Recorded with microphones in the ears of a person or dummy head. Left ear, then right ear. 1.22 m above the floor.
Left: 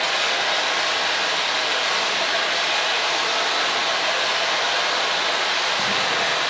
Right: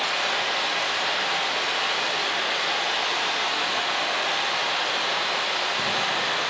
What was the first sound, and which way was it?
Running water, 5° right (ahead or behind).